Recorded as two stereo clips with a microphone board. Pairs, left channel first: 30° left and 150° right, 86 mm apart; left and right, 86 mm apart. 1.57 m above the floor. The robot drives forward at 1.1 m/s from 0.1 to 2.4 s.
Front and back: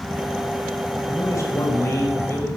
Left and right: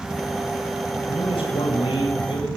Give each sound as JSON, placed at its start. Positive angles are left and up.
{"t": 1.1, "sound": "a man speaking", "azimuth_deg": 80, "distance_m": 8.0}